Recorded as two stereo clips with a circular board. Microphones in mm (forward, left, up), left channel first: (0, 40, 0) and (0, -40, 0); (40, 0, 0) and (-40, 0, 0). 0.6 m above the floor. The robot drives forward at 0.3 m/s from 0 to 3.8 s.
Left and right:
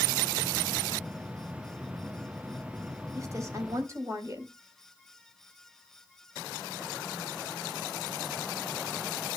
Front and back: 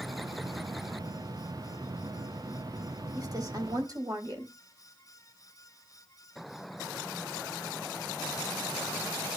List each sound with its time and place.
3.1 s a woman speaking: 140° right, 3.5 m; by 4.5 s 145° right, 3.5 m